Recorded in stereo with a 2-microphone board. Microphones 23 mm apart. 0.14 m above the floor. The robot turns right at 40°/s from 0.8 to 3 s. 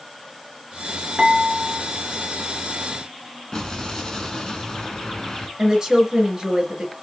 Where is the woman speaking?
20° right (ahead or behind), 1.5 m.